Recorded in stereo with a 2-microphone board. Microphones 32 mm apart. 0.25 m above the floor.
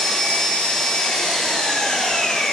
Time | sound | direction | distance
0.0 | an engine running | 20° left (ahead or behind) | 3.5 m